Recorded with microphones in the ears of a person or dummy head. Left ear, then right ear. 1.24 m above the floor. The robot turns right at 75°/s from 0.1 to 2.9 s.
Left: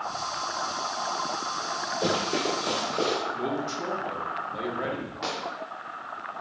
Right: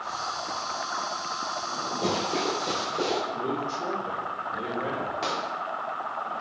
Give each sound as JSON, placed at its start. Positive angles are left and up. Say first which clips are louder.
{"t": 2.0, "sound": "running footsteps", "louder": "left 1 dB", "side_deg": 5, "distance_m": 1.9}
{"t": 3.3, "sound": "a man speaking", "louder": "right 1 dB", "side_deg": 65, "distance_m": 1.2}
{"t": 5.2, "sound": "a gunshot", "louder": "right 1 dB", "side_deg": -10, "distance_m": 0.7}